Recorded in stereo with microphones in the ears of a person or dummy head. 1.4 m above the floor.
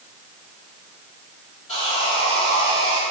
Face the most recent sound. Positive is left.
turn(degrees=30)  # may be behind; listen again after turning